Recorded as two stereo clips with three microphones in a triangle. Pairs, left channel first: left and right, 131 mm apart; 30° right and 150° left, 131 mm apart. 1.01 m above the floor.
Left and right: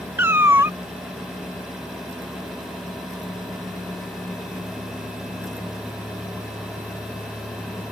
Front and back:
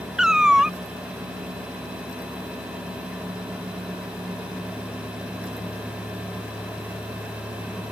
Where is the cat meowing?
130° right.